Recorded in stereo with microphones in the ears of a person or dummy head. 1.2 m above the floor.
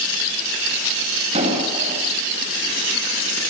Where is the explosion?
40° right (ahead or behind), 8.5 m.